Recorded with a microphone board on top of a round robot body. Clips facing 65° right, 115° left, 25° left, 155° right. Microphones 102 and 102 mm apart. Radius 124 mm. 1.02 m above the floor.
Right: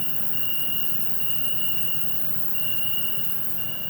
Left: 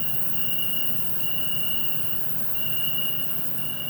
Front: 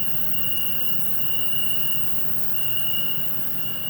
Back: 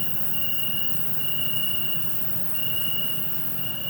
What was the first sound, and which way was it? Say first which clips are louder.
An insect: left 1 dB, even; 35° right.